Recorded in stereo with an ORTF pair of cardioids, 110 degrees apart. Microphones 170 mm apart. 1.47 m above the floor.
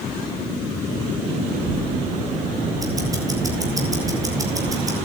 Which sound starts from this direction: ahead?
Ticking, at 2.8 s.